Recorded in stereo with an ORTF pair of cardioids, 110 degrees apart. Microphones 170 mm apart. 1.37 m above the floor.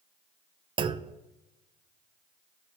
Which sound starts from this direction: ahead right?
A clunk, at 0.8 s.